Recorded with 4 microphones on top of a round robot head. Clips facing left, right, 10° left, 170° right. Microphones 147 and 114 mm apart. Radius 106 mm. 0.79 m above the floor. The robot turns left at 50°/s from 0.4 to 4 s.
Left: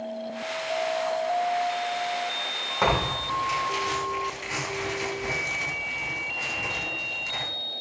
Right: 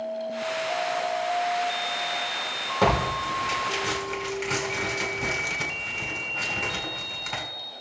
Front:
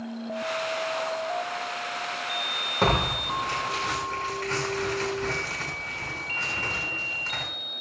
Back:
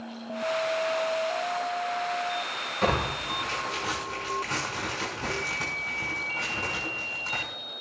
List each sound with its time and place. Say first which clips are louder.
2.8 s tearing paper: right 2 dB, front 2 dB; 35° right, 6.5 m; by 7.4 s 95° right, 6.5 m